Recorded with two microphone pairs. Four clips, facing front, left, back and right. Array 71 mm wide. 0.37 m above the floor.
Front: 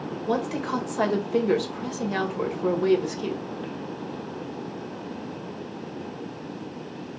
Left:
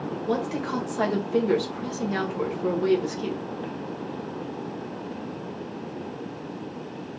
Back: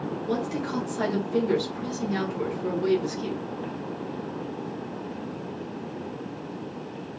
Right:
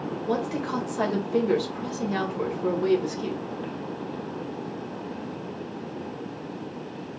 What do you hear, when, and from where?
0.3 s a woman speaking: 10° left, 1.4 m